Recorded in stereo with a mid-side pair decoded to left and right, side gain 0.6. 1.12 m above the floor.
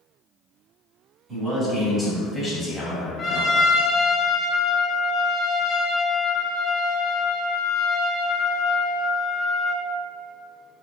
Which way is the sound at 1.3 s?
35° right.